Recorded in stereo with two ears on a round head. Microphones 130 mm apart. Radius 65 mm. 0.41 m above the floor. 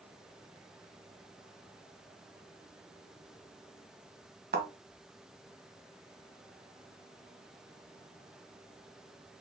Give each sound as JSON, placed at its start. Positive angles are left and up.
{"t": 4.5, "sound": "a thud", "side_deg": -75, "distance_m": 1.4}